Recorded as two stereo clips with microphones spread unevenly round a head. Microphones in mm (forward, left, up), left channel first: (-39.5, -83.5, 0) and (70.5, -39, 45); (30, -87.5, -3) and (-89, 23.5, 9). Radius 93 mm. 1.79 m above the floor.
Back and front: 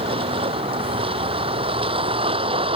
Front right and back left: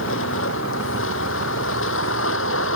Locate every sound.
0.0 s a vehicle: 20° right